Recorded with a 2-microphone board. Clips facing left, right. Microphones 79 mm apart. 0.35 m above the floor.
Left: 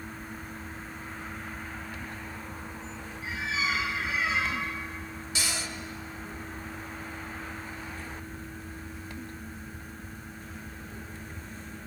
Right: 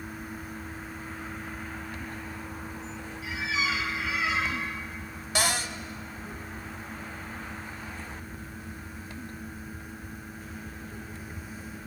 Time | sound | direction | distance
3.2 | a squeak | 40° left (ahead or behind) | 5.5 m
5.3 | a cupboard door | 60° right (ahead or behind) | 1.1 m